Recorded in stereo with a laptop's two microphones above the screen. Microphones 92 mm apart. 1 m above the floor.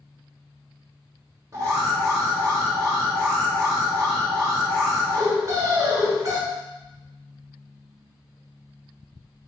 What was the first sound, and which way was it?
An alarm, 40° right (ahead or behind).